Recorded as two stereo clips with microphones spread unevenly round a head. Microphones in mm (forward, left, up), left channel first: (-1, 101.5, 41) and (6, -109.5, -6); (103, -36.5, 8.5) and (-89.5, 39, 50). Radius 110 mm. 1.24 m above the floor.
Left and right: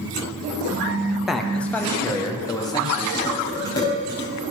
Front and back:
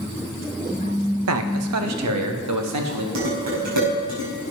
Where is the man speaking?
175° right, 1.1 m; by 3.0 s 160° left, 2 m.